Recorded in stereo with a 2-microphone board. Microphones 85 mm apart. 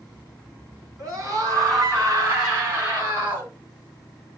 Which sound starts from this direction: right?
A scream, at 1.0 s.